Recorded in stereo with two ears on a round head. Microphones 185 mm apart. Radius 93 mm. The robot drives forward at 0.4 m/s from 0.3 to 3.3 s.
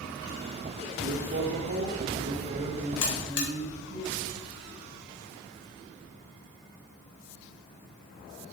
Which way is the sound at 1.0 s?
55° right (ahead or behind).